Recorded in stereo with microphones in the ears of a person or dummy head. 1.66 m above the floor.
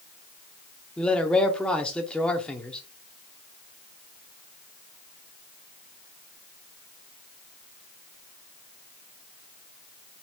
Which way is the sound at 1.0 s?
5° left (ahead or behind).